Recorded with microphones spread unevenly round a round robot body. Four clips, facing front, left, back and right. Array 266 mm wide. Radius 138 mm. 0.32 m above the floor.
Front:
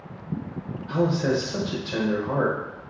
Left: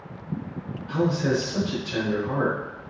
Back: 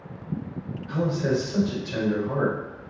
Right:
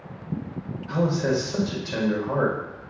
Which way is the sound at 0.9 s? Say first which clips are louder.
Even, front 2 dB; 40° right.